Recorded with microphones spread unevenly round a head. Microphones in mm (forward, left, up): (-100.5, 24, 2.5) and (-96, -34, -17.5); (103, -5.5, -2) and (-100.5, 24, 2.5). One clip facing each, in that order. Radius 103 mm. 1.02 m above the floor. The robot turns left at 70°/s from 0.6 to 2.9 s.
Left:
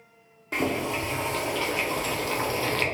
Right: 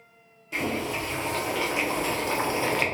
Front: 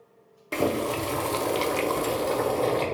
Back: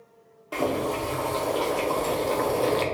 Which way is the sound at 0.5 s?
35° left.